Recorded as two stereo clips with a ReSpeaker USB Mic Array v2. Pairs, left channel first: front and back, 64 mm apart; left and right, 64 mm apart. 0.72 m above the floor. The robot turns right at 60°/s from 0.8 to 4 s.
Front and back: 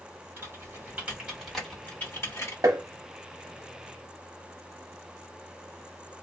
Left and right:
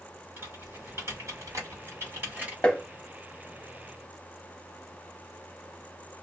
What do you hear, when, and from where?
0.4 s typing on a keyboard: 130° right, 1.9 m; by 2.5 s 25° right, 1.9 m
2.6 s tapping: 160° left, 0.6 m; by 2.8 s 170° left, 0.6 m